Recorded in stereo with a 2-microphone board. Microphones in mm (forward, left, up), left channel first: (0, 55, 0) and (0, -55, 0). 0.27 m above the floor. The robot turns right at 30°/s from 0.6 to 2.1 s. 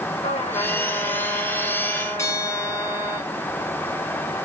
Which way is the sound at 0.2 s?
100° left.